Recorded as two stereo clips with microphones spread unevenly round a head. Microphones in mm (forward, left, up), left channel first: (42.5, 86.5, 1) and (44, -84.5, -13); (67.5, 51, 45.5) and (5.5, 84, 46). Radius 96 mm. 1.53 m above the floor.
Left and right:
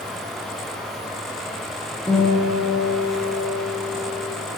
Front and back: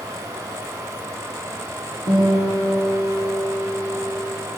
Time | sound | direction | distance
2.1 | a guitar | 170° left | 1.0 m